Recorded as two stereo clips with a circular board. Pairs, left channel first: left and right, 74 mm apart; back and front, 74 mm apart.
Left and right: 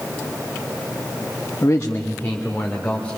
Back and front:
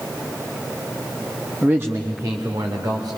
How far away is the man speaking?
About 0.7 m.